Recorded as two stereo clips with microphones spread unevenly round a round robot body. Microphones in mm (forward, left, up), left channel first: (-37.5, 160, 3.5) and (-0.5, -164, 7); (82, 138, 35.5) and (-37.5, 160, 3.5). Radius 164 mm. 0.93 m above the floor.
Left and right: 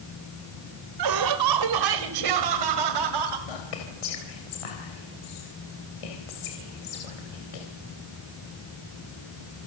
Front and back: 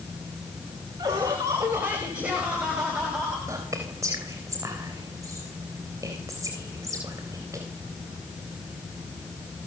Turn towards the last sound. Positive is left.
turn(degrees=105)